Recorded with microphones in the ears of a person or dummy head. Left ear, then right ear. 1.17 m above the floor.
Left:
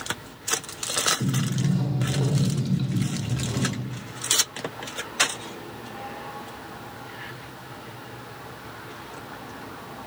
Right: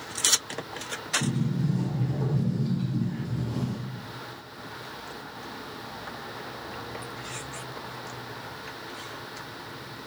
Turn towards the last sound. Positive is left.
turn(degrees=40)  # may be behind; listen again after turning